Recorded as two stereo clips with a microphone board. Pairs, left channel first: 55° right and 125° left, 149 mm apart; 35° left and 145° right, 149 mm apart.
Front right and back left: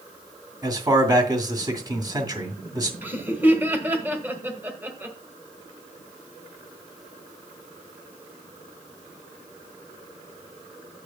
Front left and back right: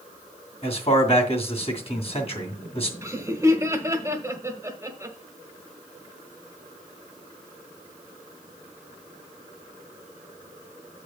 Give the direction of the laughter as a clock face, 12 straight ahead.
6 o'clock.